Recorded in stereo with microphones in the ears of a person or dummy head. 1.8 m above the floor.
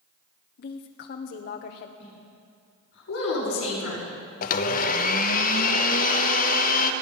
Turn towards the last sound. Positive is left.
turn(degrees=50)  # may be behind; listen again after turning